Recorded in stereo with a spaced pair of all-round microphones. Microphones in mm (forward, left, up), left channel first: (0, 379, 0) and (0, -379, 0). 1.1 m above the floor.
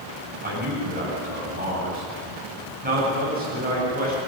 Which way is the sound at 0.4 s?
10° right (ahead or behind).